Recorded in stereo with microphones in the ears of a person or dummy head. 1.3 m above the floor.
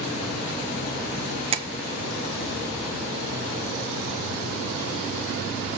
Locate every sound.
1.5 s tapping: 30° right (ahead or behind), 0.8 m